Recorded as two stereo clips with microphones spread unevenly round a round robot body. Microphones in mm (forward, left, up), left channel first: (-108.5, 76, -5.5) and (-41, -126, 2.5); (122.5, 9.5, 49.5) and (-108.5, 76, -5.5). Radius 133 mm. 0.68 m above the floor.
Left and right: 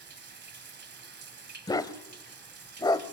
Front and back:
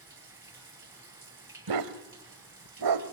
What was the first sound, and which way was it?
Running water, 115° right.